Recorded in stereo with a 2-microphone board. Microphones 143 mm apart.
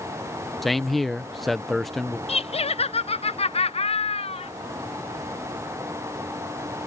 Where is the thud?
No thud in this recording.